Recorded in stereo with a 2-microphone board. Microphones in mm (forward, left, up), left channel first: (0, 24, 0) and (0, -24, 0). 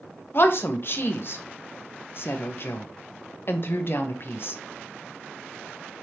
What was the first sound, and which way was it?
A woman speaking, 55° left (ahead or behind).